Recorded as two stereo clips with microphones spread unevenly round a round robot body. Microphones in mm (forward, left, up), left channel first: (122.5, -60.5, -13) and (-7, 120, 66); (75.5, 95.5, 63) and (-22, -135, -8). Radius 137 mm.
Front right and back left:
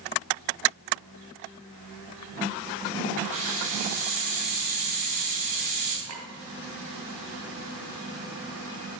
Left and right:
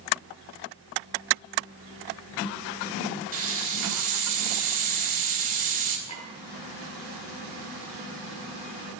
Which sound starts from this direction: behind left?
A clink, at 6.1 s.